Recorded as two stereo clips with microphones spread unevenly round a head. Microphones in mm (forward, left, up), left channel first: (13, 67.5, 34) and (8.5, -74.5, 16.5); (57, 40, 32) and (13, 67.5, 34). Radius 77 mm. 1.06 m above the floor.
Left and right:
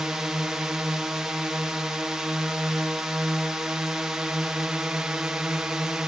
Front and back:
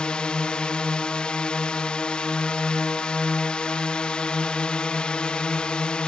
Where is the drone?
30° right.